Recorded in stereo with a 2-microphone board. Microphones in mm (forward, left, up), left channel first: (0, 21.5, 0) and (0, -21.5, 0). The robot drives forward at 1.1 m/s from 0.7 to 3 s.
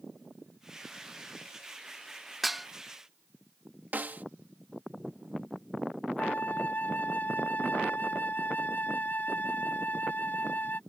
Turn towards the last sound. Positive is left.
turn(degrees=40)  # may be behind; listen again after turning